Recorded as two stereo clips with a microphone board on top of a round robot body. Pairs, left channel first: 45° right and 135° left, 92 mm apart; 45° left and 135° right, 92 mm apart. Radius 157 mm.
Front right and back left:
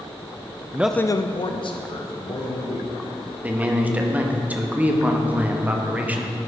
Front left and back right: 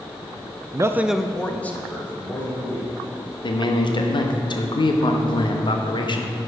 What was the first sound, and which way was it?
A man speaking, 170° right.